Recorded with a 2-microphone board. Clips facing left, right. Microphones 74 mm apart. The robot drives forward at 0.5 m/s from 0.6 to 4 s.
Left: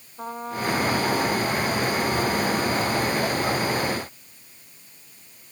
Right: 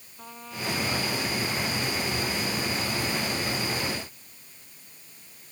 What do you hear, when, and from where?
0.2 s a trumpet: 40° left (ahead or behind); by 3.2 s 45° left (ahead or behind)